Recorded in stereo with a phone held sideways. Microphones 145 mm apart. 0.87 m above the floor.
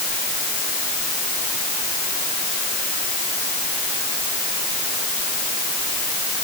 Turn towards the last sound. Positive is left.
No sound to turn to.